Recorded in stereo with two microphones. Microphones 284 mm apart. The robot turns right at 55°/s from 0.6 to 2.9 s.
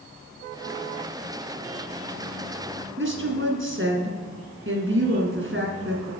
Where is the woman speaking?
45° right (ahead or behind), 2 m.